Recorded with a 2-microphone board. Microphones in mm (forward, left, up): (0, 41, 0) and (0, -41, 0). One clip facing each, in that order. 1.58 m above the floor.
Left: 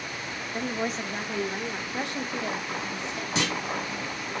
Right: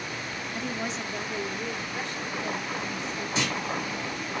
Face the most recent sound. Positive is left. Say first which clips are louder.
# left 1 dB
turn(degrees=70)  # may be behind; listen again after turning